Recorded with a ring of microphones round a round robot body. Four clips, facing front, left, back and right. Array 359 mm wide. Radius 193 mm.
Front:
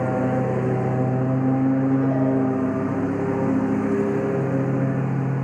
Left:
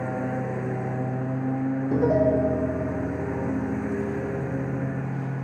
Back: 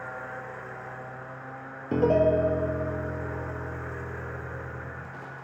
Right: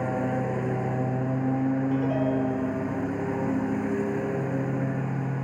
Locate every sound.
0.0 s a lawn mower: straight ahead
1.9 s a piano: 140° left